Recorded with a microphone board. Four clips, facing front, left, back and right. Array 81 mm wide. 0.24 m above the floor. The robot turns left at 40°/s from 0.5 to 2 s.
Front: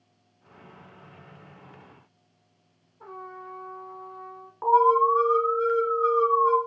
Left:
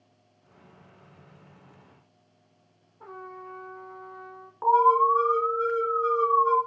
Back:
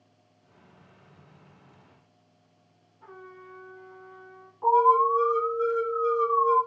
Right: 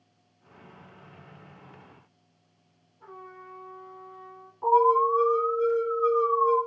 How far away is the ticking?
No ticking in this recording.